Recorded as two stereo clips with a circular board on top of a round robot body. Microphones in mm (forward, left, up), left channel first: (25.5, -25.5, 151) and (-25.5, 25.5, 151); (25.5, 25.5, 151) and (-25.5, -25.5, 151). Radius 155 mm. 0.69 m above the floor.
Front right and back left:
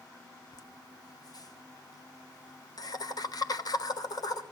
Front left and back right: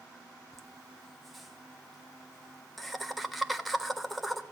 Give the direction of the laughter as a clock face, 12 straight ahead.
1 o'clock.